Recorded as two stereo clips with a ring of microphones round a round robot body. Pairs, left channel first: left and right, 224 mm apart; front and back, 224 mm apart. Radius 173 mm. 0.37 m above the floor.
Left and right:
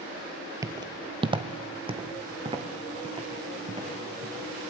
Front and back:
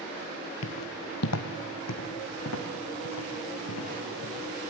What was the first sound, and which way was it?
Footsteps, 15° right.